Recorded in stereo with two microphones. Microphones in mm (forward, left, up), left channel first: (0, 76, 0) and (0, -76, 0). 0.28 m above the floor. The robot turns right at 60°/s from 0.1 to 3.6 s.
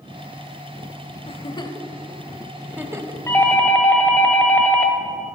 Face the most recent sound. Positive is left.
turn(degrees=10)  # may be behind; listen again after turning